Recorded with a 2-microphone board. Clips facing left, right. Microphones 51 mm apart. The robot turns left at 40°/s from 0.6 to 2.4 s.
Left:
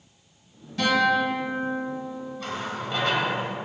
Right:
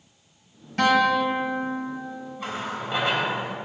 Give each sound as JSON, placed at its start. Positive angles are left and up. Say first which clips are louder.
{"t": 0.8, "sound": "a guitar", "louder": "right 2 dB", "azimuth_deg": -90, "distance_m": 2.5}
{"t": 2.4, "sound": "a running tap", "louder": "right 2 dB", "side_deg": -20, "distance_m": 0.9}